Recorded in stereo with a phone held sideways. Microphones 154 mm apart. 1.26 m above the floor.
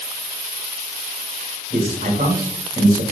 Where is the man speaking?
55° right (ahead or behind), 1.5 m.